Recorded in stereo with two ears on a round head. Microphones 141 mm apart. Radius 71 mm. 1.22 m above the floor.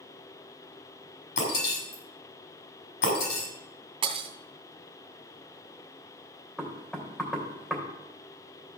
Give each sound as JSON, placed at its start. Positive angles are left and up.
{"t": 1.4, "sound": "breaking glass", "side_deg": 85, "distance_m": 6.0}
{"t": 4.0, "sound": "breaking glass", "side_deg": -35, "distance_m": 2.0}
{"t": 6.6, "sound": "knocking", "side_deg": 5, "distance_m": 3.0}